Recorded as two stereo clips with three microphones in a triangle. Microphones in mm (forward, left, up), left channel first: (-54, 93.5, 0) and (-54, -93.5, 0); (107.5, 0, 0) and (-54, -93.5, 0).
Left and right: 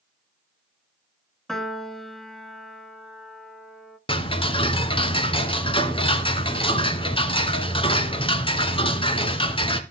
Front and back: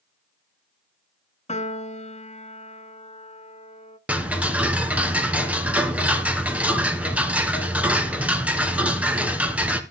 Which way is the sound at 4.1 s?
130° left.